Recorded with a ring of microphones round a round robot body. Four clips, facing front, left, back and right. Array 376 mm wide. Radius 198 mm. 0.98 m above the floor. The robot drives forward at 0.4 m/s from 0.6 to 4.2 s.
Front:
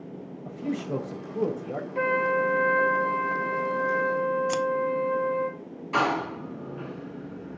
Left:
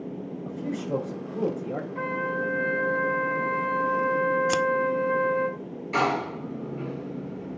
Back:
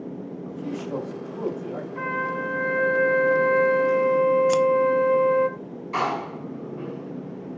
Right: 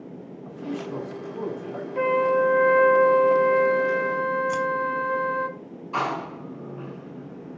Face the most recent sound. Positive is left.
turn(degrees=55)